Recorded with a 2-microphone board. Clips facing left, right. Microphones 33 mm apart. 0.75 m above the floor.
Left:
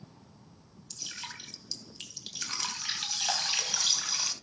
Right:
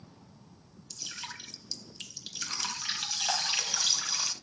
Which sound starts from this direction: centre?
Dripping, at 0.9 s.